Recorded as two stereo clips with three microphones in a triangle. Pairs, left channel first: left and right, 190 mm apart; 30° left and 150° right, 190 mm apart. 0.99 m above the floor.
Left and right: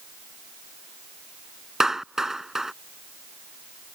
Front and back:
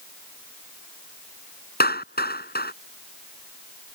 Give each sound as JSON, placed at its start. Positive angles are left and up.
{"t": 1.8, "sound": "a clap", "azimuth_deg": 0}